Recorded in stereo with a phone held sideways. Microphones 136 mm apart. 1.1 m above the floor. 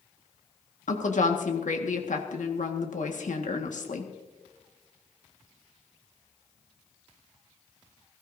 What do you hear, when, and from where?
0.9 s a woman speaking: 75° left (ahead or behind), 1.6 m